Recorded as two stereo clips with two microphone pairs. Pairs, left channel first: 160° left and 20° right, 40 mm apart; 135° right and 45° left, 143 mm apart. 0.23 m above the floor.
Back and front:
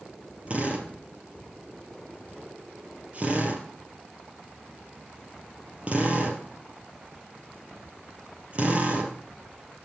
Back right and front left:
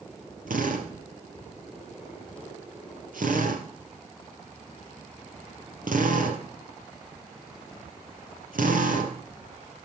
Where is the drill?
35° left, 3 m.